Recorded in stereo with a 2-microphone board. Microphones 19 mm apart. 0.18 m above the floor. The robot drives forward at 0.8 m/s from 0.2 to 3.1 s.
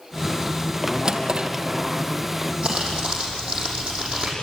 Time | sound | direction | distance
1.1 | a drawer | 40° right (ahead or behind) | 1.9 m
2.6 | crumpling | 55° right (ahead or behind) | 5.5 m